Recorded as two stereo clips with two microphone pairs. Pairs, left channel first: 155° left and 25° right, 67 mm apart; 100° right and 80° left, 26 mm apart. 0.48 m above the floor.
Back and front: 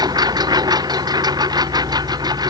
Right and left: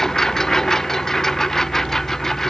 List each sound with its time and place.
0.0 s a lawn mower: 25° right